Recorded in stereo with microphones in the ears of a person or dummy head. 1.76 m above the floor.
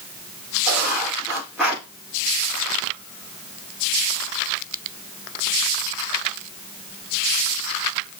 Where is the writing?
Centre (ahead or behind), 5 m.